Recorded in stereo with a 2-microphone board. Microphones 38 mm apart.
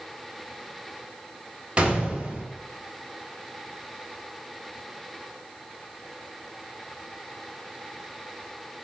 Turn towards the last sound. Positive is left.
turn(degrees=-25)  # may be behind; listen again after turning